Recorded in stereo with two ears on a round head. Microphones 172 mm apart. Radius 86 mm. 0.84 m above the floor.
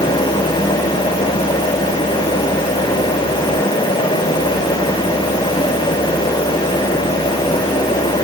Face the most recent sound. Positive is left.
No sound to turn to.